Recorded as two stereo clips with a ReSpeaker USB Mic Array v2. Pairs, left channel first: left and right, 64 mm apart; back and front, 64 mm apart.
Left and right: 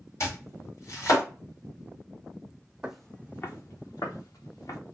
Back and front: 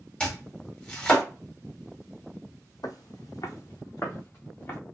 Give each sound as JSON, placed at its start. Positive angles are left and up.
{"t": 0.2, "sound": "chopping", "azimuth_deg": 110, "distance_m": 2.5}
{"t": 2.8, "sound": "footsteps", "azimuth_deg": -165, "distance_m": 0.6}